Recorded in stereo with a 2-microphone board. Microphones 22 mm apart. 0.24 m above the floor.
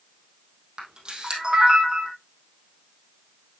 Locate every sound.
0.8 s a camera shutter: 50° right (ahead or behind), 3 m